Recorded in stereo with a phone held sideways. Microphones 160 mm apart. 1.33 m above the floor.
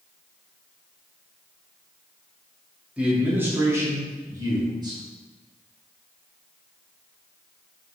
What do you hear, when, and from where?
3.0 s a man speaking: 10° right (ahead or behind), 2.5 m; by 5.0 s 30° right (ahead or behind), 3 m